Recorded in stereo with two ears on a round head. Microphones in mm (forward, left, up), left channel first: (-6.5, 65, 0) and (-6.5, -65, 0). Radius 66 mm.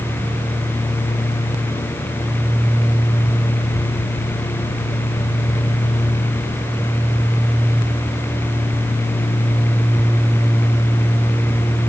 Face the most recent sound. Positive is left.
No sound to turn to.